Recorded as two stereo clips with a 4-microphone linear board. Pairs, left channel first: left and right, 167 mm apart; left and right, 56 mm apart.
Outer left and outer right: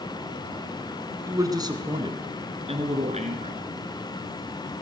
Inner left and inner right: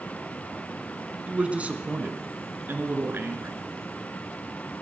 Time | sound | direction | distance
1.3 | a man speaking | 20° right (ahead or behind) | 1.7 m